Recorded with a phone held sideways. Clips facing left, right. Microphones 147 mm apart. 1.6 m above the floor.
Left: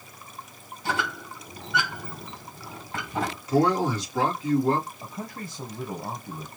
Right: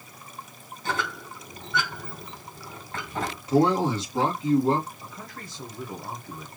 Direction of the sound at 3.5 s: 25° right (ahead or behind).